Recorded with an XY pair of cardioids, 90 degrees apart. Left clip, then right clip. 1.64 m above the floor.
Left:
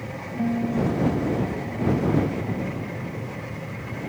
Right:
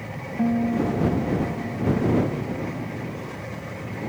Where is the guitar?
25° right.